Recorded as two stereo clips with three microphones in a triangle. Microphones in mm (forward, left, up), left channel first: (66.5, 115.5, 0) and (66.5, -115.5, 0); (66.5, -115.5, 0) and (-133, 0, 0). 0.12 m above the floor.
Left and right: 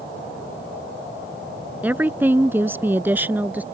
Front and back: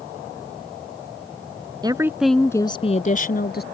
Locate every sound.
1.8 s a woman speaking: 165° right; by 3.6 s 10° right